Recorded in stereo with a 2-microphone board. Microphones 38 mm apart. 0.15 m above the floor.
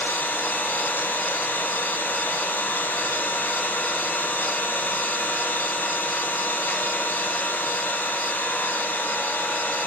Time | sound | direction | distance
0.0 | an engine running | 75° left (ahead or behind) | 1.8 m